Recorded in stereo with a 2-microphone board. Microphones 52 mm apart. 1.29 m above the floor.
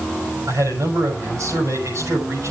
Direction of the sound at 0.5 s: 80° right.